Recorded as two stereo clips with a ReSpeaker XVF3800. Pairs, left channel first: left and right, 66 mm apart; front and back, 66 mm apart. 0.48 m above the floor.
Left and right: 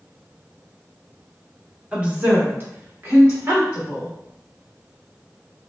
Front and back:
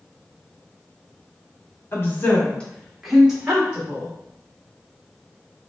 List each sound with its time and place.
1.9 s a woman speaking: 30° right, 1.0 m; by 4.1 s 125° right, 1.4 m